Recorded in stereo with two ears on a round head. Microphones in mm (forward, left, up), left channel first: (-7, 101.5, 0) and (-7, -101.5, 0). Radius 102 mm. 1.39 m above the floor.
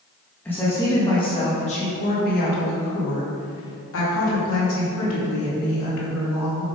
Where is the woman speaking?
10° left (ahead or behind), 1.7 m; by 6.7 s 80° left, 3.5 m.